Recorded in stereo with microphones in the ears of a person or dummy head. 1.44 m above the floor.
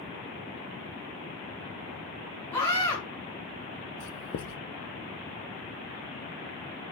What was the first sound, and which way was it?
A scream, 10° left (ahead or behind).